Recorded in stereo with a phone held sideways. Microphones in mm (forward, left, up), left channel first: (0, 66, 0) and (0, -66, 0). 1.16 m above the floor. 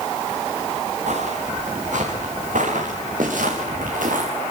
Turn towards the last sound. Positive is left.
turn(degrees=-85)